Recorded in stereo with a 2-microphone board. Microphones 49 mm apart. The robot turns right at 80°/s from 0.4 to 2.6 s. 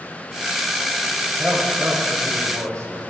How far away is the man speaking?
About 8 m.